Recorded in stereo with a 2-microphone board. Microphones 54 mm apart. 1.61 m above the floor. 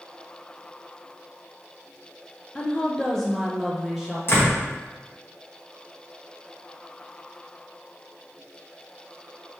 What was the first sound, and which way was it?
A woman speaking, 20° left (ahead or behind).